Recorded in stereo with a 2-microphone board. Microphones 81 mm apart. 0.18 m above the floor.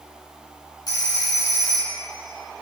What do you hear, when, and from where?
0.9 s a phone ringing: 50° left (ahead or behind), 1.7 m